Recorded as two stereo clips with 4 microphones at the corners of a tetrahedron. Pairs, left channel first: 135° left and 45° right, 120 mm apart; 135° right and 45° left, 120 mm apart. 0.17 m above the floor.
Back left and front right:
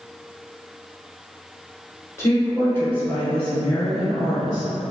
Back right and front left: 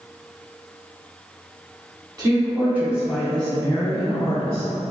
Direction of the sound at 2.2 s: 85° left.